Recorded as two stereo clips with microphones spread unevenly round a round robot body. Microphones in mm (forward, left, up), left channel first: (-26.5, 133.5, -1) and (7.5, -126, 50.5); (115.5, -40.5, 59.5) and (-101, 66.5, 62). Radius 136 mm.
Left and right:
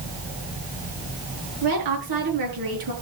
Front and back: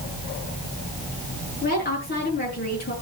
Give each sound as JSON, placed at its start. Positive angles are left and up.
{"t": 1.6, "sound": "a woman speaking", "azimuth_deg": -80, "distance_m": 7.5}